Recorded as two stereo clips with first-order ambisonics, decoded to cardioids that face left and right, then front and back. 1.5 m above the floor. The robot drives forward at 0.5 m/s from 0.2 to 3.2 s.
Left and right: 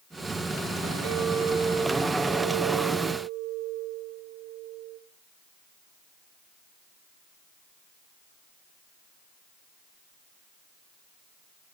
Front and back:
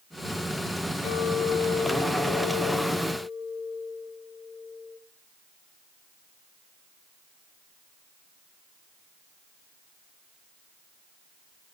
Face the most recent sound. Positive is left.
turn(degrees=-65)